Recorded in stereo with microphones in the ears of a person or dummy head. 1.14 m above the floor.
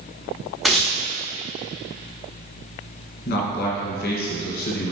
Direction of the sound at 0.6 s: Centre (ahead or behind).